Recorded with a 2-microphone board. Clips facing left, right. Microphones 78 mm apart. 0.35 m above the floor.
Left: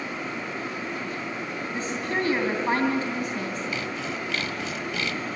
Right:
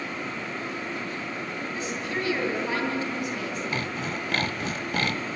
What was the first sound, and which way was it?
A woman speaking, 35° left (ahead or behind).